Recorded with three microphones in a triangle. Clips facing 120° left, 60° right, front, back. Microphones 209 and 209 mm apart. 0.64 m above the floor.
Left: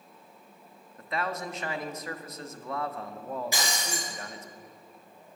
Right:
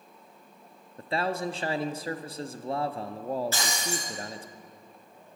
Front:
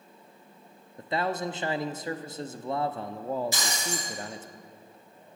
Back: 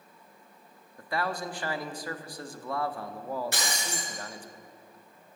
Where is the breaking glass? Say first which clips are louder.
Right 1 dB, front 2 dB; 165° right, 4.5 m.